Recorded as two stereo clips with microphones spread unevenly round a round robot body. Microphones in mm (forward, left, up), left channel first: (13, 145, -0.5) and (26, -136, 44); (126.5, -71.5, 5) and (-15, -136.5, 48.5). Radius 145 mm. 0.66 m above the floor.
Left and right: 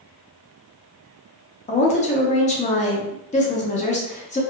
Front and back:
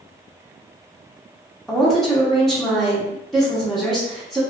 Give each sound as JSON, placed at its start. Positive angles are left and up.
{"t": 1.7, "sound": "a woman speaking", "azimuth_deg": 85, "distance_m": 0.7}